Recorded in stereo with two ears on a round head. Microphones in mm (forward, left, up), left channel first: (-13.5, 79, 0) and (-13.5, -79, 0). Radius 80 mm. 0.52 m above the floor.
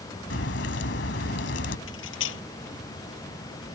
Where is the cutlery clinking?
90° left.